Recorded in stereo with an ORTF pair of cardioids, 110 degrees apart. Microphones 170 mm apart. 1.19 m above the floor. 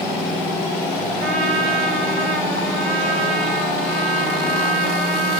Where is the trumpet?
50° right, 4.5 m.